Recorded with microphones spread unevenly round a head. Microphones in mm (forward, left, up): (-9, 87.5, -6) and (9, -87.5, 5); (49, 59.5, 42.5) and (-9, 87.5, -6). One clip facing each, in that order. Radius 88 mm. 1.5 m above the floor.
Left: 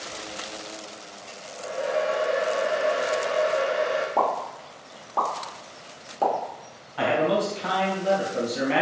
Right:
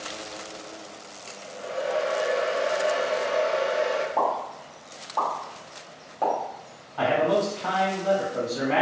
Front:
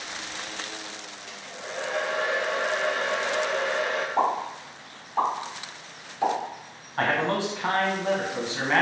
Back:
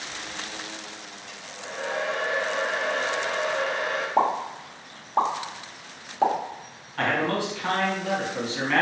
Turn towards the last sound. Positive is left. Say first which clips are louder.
# even, even
turn(degrees=20)